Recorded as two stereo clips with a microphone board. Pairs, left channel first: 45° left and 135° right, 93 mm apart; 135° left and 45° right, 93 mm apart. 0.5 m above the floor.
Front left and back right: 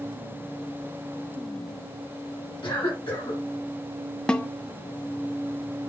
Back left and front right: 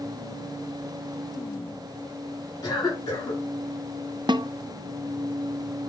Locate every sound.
2.6 s a cough: 85° left, 4.5 m
4.3 s a snare drum: 35° right, 0.6 m